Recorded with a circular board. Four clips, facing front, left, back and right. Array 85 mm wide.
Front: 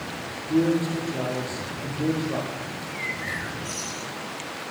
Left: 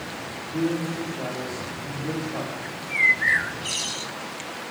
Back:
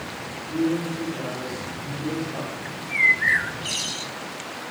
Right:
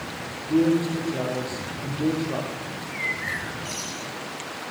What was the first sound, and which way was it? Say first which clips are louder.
A man speaking: right 6 dB, front 2 dB; 50° right.